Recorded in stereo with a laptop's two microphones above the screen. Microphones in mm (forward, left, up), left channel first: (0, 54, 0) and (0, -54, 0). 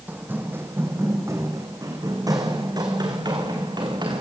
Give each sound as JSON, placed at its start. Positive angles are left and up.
{"t": 0.1, "sound": "running footsteps", "side_deg": -15, "distance_m": 2.5}